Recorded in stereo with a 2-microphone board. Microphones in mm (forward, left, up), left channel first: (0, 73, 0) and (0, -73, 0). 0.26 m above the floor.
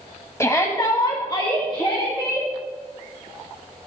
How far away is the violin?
I don't hear a violin.